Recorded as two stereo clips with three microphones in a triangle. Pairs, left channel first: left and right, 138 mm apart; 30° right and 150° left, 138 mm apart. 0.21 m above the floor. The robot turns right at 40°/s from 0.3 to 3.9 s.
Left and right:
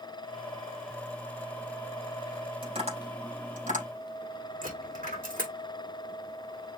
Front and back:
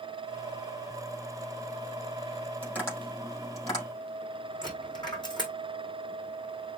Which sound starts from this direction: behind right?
Tapping, at 2.6 s.